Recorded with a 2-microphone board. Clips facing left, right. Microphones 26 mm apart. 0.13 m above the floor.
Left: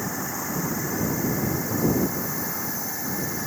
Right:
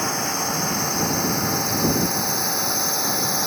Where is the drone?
75° right (ahead or behind); by 3.5 s 80° right.